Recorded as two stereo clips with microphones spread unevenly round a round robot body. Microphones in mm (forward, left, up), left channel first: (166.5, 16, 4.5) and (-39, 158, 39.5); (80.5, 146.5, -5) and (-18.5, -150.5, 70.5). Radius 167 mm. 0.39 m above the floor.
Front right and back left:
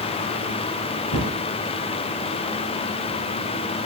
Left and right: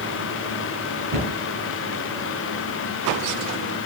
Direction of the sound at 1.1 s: 75° right.